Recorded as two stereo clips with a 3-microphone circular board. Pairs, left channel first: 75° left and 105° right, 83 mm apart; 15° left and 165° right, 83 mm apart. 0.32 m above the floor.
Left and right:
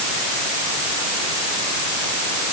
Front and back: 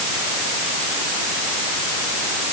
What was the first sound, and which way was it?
Only background noise.